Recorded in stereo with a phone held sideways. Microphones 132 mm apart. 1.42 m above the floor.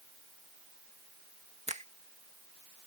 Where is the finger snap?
60° right (ahead or behind).